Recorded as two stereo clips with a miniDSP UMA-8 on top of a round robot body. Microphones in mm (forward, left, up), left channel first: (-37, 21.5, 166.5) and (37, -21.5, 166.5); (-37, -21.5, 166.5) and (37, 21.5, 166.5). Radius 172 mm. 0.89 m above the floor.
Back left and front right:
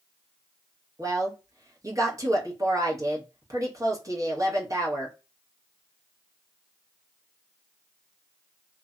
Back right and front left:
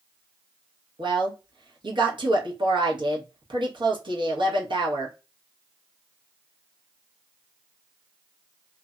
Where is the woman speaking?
15° left, 1.1 m.